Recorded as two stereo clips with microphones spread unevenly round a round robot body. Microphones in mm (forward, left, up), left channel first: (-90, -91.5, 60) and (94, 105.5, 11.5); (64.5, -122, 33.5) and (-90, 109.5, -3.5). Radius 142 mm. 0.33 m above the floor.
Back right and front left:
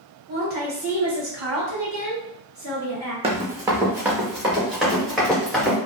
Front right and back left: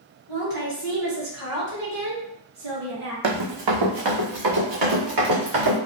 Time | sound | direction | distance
0.3 | a woman speaking | 100° left | 1.7 m
3.2 | running footsteps | 120° left | 0.9 m